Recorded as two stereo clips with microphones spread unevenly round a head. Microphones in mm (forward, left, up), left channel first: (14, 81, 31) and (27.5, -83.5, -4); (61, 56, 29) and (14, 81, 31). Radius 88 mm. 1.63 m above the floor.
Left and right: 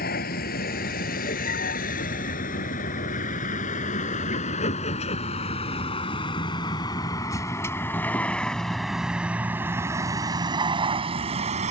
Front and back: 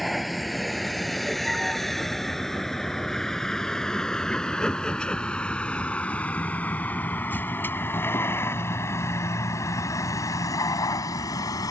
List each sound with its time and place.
0.0 s a vehicle: 65° left; by 11.7 s 35° right